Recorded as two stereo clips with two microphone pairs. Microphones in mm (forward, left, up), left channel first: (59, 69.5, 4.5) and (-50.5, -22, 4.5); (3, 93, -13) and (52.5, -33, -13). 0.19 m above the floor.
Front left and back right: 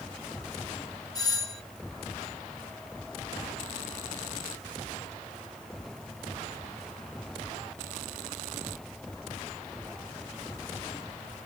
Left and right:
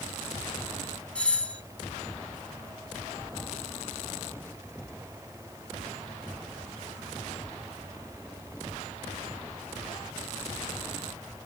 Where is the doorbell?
40° left, 1.6 m.